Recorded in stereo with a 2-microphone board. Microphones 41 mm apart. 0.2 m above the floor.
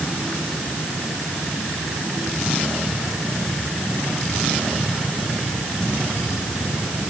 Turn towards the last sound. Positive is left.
No sound to turn to.